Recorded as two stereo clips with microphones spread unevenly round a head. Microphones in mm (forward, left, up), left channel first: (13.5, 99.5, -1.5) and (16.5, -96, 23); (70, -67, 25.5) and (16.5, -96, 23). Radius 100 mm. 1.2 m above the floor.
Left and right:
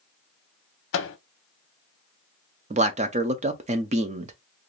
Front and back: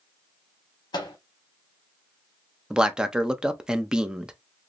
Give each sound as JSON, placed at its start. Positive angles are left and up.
{"t": 0.9, "sound": "a microwave", "azimuth_deg": 65, "distance_m": 0.6}
{"t": 2.7, "sound": "a man speaking", "azimuth_deg": -95, "distance_m": 0.5}